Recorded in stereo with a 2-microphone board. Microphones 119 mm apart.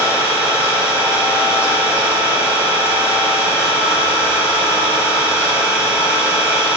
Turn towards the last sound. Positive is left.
turn(degrees=25)  # may be behind; listen again after turning